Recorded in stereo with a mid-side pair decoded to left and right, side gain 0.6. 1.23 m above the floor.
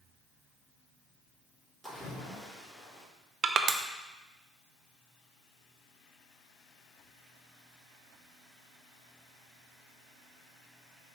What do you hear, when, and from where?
1.8 s a splash: 10° left, 3 m
3.4 s crushing: 40° right, 0.7 m